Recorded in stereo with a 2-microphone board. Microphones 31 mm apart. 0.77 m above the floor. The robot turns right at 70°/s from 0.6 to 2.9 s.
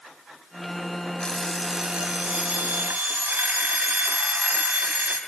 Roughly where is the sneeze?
No sneeze in this recording.